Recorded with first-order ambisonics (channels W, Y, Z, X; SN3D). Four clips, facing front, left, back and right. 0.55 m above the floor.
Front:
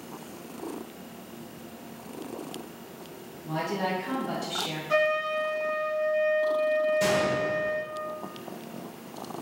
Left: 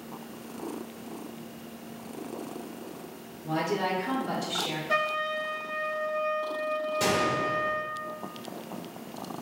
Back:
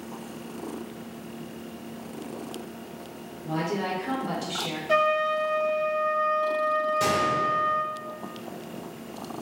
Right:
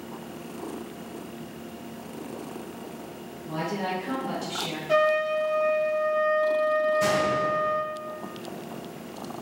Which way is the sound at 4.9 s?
160° right.